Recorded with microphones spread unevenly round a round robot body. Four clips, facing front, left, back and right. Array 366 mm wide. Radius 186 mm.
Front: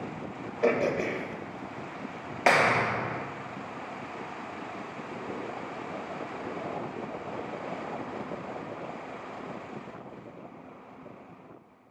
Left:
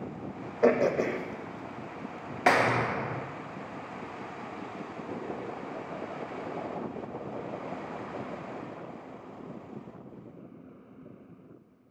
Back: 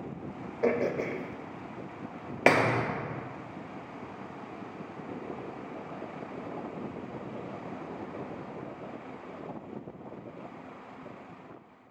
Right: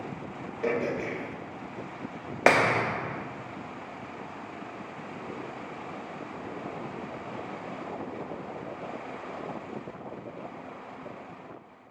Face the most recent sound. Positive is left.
turn(degrees=-155)